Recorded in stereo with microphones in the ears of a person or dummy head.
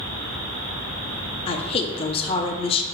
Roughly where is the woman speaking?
Left.